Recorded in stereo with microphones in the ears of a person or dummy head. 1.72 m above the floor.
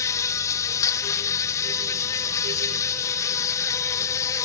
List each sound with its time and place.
0.0 s an insect: 15° left (ahead or behind), 0.9 m